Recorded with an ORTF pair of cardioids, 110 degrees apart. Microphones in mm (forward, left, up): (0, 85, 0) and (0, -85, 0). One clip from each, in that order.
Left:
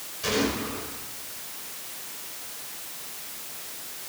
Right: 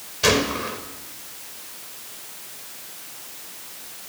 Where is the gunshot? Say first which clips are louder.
Right 6 dB; 70° right, 5.5 m.